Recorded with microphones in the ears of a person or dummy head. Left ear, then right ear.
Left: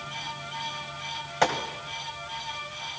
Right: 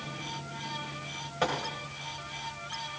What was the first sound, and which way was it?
A gunshot, 25° left (ahead or behind).